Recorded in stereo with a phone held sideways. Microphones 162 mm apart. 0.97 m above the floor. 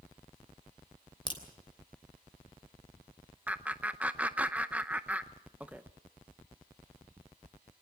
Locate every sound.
1.3 s a crack: 30° left (ahead or behind), 3 m
3.5 s laughter: 10° right (ahead or behind), 0.6 m